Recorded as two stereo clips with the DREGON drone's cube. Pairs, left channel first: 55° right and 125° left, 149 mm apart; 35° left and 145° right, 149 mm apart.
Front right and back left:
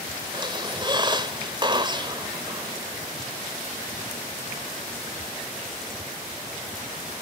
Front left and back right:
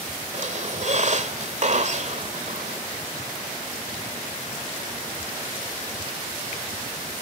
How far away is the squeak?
About 1.8 m.